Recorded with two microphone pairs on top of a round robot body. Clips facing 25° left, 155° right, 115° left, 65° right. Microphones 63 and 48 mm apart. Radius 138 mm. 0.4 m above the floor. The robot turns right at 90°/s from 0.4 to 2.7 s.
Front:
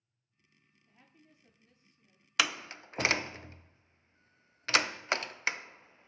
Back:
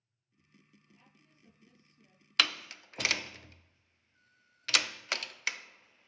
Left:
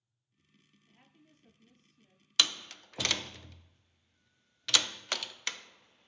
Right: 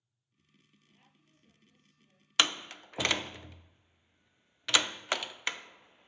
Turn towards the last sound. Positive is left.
turn(degrees=-20)